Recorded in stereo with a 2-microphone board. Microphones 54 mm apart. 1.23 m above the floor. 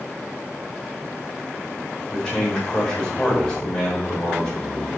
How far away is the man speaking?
About 4 m.